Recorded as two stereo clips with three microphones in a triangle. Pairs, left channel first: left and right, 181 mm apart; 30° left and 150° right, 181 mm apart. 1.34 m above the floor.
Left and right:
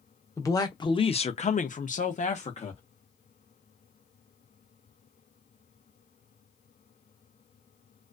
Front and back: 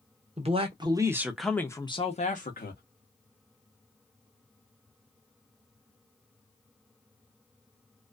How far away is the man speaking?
About 0.9 m.